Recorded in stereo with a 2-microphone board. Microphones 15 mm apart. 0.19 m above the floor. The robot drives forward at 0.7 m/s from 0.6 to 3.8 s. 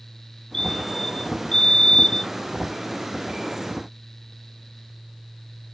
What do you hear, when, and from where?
0.5 s a fire alarm: 40° left (ahead or behind); by 2.3 s 45° left (ahead or behind)